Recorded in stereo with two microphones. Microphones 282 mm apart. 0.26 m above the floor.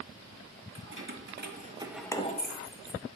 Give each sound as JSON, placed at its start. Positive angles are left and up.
{"t": 0.8, "sound": "keys jangling", "side_deg": -45, "distance_m": 1.9}